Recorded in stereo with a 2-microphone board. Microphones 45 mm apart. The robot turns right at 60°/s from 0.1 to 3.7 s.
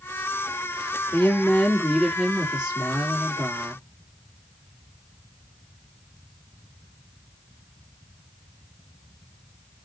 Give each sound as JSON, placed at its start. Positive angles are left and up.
{"t": 1.1, "sound": "a woman speaking", "azimuth_deg": 110, "distance_m": 2.5}